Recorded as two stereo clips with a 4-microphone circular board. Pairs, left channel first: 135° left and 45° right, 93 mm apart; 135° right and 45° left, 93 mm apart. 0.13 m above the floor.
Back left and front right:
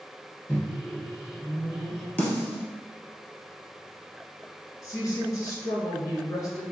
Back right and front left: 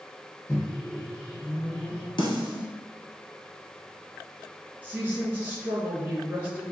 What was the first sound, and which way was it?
A microwave, 175° left.